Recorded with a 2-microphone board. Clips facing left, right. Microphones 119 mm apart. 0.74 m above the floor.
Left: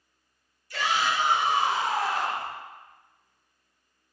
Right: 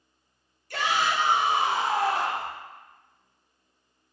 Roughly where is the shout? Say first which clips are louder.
Right 1 dB; right.